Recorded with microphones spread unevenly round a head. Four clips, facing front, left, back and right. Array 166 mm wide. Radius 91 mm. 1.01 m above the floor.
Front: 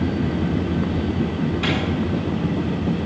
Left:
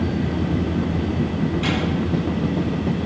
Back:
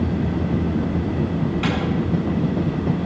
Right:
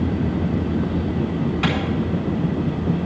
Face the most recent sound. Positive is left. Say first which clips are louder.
# right 4 dB, even
turn(degrees=-90)